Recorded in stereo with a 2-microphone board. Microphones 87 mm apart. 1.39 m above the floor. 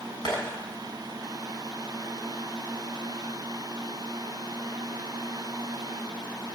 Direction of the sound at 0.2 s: 60° left (ahead or behind).